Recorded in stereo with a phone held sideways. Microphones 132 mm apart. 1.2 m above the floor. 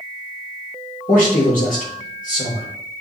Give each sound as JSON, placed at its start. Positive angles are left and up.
{"t": 1.1, "sound": "a man speaking", "side_deg": 85, "distance_m": 3.5}